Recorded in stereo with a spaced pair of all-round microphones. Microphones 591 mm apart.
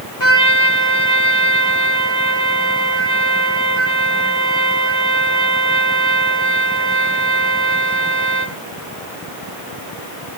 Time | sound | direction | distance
0.2 | a trumpet | 50° left (ahead or behind) | 2.5 m